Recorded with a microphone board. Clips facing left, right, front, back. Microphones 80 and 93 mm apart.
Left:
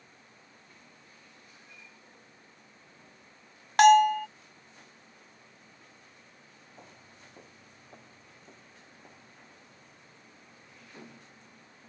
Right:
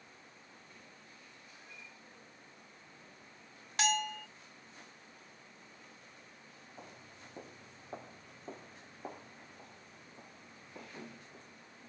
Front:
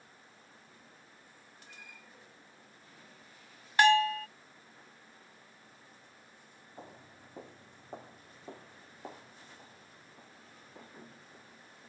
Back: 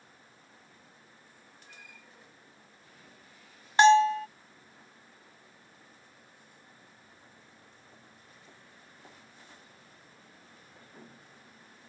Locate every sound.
3.8 s a bell: 115° left
6.8 s footsteps: 5° right; by 11.6 s 65° right